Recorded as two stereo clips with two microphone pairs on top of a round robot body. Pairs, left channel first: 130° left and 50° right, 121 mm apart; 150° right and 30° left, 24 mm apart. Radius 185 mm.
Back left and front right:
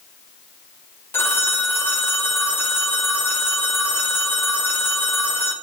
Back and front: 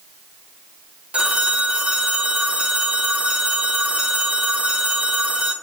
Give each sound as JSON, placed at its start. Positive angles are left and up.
{"t": 1.1, "sound": "a phone ringing", "azimuth_deg": 60, "distance_m": 1.1}